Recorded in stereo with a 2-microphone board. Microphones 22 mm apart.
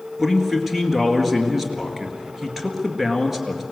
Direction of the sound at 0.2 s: 10° right (ahead or behind).